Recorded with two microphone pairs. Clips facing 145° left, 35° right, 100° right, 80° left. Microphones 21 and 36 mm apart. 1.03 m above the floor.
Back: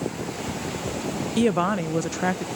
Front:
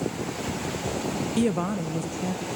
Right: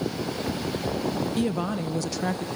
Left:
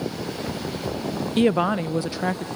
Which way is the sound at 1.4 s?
70° left.